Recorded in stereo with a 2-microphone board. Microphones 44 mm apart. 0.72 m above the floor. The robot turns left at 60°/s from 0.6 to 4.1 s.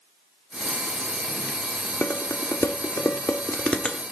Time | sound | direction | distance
2.0 | dishes clattering | 45° left (ahead or behind) | 1.2 m